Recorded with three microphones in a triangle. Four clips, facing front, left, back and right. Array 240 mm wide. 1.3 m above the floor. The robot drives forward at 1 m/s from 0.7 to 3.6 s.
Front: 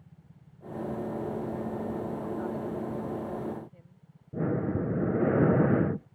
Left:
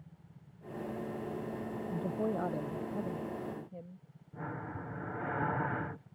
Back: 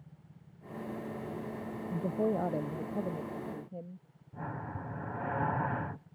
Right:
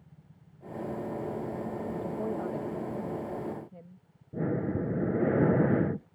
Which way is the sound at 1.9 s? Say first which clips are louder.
Left 1 dB, back 2 dB; 160° left.